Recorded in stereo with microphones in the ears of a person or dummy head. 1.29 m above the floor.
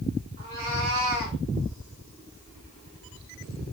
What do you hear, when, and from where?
0.4 s a cat meowing: 50° right (ahead or behind), 3 m; by 1.4 s 60° right (ahead or behind), 3 m